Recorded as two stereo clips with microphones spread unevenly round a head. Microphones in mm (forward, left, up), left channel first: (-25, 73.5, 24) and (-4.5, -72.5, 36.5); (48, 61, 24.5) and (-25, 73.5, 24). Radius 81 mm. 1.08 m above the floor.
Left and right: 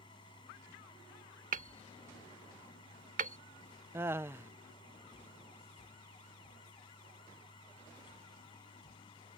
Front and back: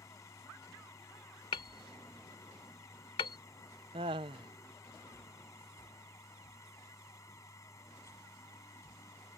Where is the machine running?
35° left.